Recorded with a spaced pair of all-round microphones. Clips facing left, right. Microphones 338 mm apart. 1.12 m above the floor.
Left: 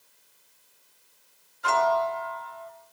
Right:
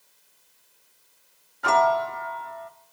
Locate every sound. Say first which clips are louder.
1.6 s a piano: right 2 dB; 70° right (ahead or behind), 1.5 m